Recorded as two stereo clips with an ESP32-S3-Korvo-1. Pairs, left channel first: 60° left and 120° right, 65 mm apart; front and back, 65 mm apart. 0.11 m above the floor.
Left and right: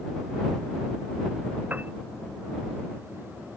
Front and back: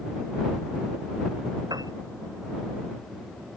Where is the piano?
175° left.